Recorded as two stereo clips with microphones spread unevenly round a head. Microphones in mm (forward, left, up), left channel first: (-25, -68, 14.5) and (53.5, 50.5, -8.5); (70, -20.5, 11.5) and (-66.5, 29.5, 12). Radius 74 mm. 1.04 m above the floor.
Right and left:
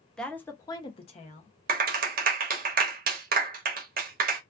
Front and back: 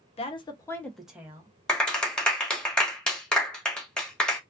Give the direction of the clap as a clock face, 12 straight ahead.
10 o'clock.